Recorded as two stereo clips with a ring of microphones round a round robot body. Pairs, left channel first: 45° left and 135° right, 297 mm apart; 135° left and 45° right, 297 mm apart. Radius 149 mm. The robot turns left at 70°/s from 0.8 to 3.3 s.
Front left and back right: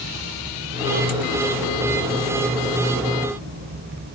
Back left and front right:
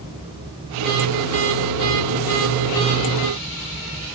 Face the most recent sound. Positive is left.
No sound to turn to.